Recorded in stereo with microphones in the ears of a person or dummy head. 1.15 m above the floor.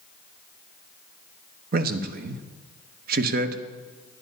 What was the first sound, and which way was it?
A man speaking, 50° right (ahead or behind).